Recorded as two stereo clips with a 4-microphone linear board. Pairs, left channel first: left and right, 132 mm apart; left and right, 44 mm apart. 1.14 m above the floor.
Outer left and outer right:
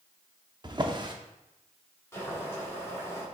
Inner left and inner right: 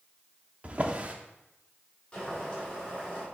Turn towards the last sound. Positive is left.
turn(degrees=20)  # may be behind; listen again after turning